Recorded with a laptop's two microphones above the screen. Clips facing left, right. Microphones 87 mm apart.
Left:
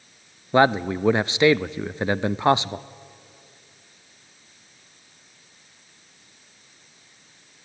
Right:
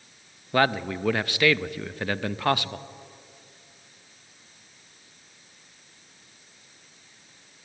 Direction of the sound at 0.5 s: 20° left (ahead or behind).